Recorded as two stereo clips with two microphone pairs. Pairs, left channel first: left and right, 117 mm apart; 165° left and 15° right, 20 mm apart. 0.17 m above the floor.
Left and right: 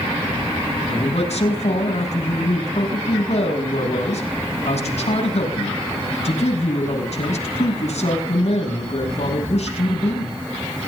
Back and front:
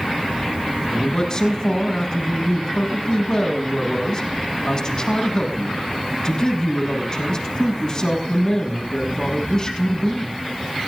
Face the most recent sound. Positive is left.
turn(degrees=115)